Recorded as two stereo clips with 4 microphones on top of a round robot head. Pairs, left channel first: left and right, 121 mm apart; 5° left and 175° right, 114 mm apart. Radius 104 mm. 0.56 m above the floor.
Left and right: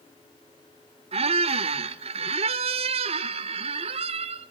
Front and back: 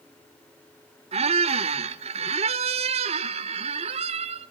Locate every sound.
1.1 s a squeak: 135° right, 0.7 m